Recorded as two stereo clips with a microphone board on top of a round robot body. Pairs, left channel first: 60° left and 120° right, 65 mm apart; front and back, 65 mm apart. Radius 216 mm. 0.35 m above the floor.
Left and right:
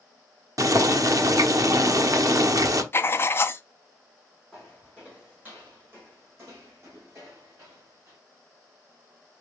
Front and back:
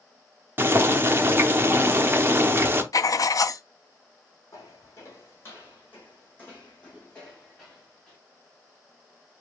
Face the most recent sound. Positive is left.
turn(degrees=-80)